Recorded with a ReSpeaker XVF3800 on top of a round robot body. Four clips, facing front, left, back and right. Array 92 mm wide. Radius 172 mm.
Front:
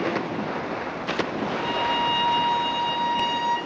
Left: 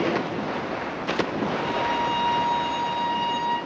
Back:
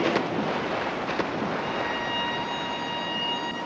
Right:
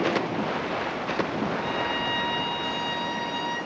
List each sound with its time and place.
1.6 s a violin: 5° left, 5.5 m